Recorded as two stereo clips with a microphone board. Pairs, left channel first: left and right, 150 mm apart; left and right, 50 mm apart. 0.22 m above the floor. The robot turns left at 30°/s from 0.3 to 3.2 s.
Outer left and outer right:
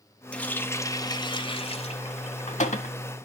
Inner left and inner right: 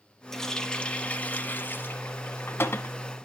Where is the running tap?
170° left, 1.1 m; by 3.0 s 90° left, 1.1 m.